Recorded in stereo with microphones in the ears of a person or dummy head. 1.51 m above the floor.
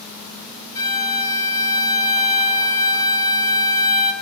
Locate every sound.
0.8 s a violin: 15° left (ahead or behind), 0.8 m